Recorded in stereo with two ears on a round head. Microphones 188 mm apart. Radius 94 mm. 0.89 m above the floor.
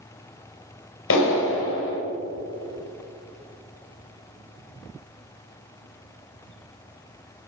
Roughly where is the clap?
Left.